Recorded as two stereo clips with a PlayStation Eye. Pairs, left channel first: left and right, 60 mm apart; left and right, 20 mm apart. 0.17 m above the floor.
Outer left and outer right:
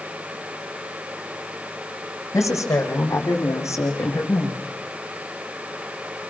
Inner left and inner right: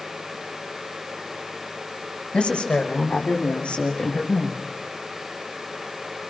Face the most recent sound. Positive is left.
turn(degrees=50)  # may be behind; listen again after turning